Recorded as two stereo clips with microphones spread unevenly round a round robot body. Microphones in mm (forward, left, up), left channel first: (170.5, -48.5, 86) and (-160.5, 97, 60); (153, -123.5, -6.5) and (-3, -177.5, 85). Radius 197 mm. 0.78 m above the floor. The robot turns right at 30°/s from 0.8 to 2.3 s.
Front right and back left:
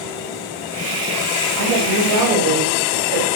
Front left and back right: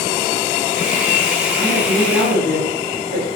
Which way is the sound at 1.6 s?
125° left.